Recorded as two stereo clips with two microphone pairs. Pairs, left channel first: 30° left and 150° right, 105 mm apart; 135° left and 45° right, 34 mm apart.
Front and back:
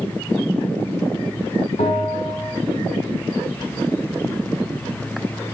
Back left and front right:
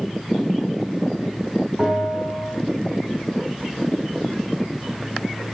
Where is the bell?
35° left, 5 m.